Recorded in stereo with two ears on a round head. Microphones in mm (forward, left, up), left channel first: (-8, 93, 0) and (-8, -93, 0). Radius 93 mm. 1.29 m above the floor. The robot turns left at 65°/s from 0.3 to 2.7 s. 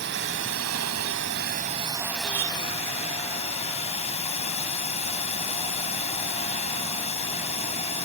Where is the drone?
55° right; by 8.1 s 150° left.